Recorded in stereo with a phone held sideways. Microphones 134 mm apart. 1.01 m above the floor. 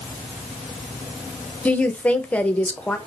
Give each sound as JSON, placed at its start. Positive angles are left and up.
{"t": 1.6, "sound": "a woman speaking", "side_deg": 10, "distance_m": 0.6}